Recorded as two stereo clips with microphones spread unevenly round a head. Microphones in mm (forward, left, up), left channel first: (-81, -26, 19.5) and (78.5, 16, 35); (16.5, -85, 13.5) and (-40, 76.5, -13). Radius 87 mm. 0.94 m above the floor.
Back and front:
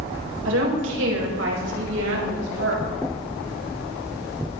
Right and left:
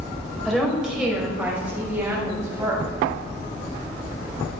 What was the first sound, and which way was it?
A woman speaking, 20° left.